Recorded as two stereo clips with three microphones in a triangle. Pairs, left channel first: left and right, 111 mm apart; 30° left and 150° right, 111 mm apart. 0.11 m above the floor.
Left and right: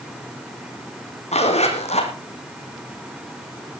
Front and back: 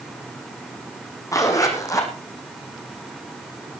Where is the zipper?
90° left, 3.5 m.